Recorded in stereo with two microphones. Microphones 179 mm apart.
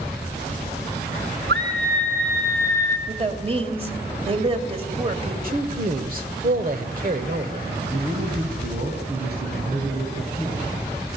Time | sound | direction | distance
1.5 | a scream | 70° right (ahead or behind) | 2.5 m
3.1 | a woman speaking | 35° right (ahead or behind) | 2.5 m
5.4 | a man speaking | 50° right (ahead or behind) | 1.4 m
7.9 | a man speaking | 60° right (ahead or behind) | 3.5 m